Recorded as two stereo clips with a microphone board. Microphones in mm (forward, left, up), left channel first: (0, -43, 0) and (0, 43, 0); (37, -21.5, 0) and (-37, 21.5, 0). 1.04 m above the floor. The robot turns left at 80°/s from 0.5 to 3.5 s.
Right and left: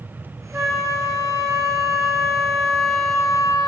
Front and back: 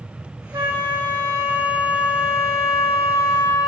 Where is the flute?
160° left, 1.2 m; by 3.7 s 80° right, 1.2 m.